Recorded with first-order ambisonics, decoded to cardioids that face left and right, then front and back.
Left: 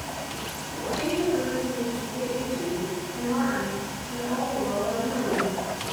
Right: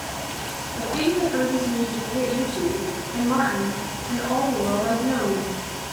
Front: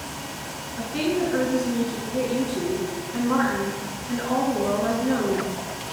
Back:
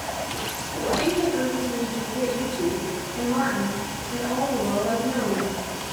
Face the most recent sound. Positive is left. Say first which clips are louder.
# right 5 dB, back 2 dB
turn(degrees=-45)